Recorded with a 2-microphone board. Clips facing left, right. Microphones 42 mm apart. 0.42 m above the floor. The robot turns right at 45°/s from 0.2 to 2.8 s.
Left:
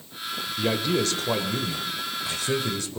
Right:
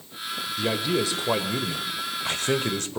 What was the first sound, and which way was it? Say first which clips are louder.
A man speaking: left 1 dB; 175° left.